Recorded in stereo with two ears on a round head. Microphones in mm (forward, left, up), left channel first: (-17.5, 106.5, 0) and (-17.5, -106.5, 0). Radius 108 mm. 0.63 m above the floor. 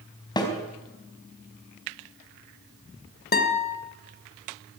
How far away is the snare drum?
About 4 m.